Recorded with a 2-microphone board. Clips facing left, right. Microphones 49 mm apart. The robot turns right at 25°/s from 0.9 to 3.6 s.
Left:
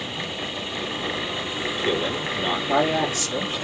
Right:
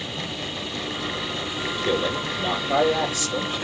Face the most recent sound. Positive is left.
turn(degrees=85)